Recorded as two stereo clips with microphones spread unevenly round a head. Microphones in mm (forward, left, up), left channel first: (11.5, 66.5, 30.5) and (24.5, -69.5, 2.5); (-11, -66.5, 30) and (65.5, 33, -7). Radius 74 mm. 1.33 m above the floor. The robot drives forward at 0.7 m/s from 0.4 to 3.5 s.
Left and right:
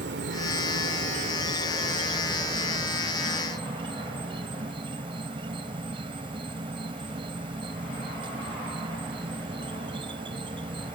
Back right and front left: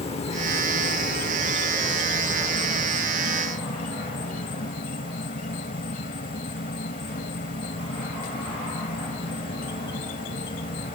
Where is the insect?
105° right; by 10.9 s 145° right.